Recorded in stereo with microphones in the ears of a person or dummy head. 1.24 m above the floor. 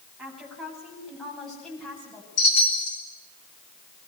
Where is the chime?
55° left (ahead or behind), 9 m.